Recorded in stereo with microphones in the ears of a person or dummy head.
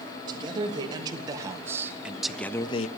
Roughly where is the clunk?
I don't hear a clunk.